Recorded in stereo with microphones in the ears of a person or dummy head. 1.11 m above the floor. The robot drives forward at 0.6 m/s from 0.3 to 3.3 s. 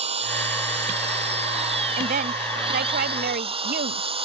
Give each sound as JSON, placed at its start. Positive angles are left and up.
{"t": 0.0, "sound": "an engine running", "side_deg": -35}
{"t": 2.0, "sound": "a woman speaking", "side_deg": -45}